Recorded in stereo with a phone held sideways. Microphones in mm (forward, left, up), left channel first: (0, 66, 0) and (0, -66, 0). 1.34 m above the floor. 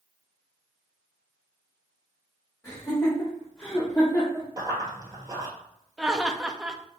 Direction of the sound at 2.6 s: 30° left (ahead or behind).